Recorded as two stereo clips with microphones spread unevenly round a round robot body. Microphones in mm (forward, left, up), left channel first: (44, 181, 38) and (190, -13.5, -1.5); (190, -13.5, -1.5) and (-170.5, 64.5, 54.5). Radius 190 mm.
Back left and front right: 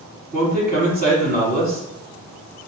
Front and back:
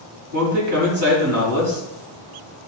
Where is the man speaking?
135° right, 4 m.